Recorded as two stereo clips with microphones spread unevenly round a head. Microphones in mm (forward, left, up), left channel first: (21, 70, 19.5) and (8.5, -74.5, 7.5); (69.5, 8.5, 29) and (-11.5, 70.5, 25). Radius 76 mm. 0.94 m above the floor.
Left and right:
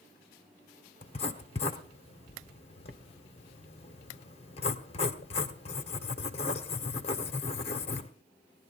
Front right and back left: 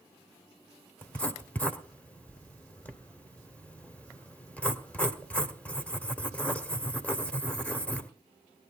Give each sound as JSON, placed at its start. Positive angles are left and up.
{"t": 1.0, "sound": "writing", "azimuth_deg": 40, "distance_m": 1.2}